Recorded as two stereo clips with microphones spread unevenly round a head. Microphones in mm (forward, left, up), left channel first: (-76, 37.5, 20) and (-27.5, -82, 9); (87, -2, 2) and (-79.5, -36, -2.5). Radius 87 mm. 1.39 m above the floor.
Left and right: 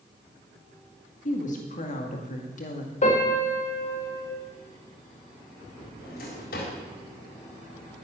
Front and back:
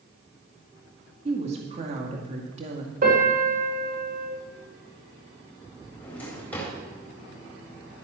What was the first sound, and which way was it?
A woman speaking, 135° left.